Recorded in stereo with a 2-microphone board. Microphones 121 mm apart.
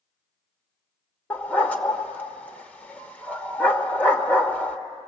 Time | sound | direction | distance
1.3 | a dog barking | 10° left (ahead or behind) | 1.1 m